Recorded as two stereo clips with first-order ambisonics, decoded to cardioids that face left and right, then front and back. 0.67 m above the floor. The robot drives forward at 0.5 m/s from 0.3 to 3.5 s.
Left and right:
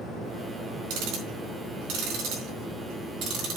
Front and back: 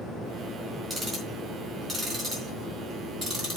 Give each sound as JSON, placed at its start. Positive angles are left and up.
{"t": 0.9, "sound": "ticking", "azimuth_deg": -105, "distance_m": 4.0}